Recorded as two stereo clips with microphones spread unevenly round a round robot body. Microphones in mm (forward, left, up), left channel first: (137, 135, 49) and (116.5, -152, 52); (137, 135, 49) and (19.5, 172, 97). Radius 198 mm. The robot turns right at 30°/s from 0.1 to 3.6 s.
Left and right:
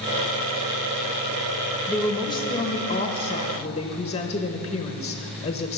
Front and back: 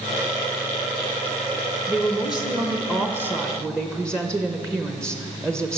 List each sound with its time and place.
1.9 s a woman speaking: 15° left, 0.8 m; by 5.8 s 65° left, 0.8 m